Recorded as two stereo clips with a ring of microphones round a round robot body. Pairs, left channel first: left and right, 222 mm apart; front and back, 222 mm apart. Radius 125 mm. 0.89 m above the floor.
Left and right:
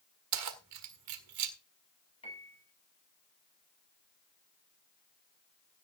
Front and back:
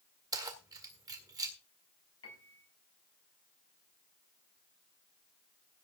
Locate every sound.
0.3 s keys jangling: 105° right, 1.6 m
2.2 s a piano: 25° left, 6 m